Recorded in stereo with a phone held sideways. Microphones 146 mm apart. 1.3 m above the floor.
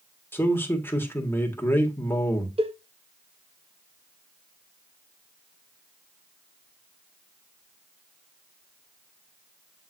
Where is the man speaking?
15° left (ahead or behind), 1.8 m.